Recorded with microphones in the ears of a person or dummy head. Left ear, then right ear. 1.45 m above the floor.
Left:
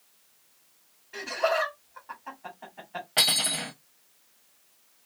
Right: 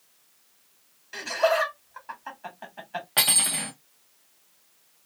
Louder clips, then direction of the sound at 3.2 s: Even; 10° right (ahead or behind).